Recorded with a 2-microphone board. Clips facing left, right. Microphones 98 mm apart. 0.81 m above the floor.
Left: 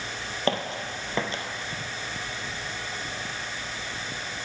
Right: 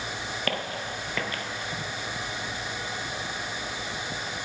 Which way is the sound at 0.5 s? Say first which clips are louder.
Left 5 dB; 25° left (ahead or behind).